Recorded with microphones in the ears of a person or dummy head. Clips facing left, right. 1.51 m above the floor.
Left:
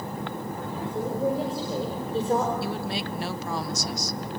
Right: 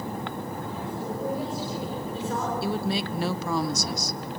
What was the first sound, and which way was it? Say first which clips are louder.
A woman speaking: left 5 dB; 20° left (ahead or behind).